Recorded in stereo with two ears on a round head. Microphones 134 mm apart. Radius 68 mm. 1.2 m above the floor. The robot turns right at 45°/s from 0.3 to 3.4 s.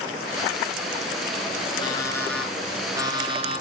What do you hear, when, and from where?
1.8 s an alarm clock: 150° left, 9 m; by 3.6 s 140° right, 9 m